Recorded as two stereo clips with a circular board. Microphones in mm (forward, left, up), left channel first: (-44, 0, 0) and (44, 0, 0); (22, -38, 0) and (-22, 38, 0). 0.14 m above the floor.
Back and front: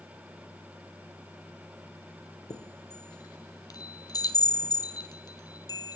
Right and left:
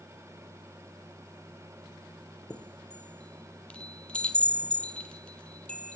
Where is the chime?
140° right, 1.1 m.